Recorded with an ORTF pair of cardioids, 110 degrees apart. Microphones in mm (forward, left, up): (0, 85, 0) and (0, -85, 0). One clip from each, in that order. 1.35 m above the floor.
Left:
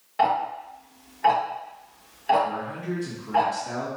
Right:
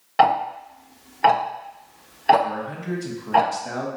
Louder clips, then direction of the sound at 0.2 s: Right 5 dB; 50° right.